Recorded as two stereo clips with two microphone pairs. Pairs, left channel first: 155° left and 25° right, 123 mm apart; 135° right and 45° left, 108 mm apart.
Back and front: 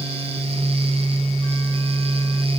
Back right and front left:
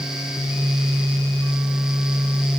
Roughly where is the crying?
No crying in this recording.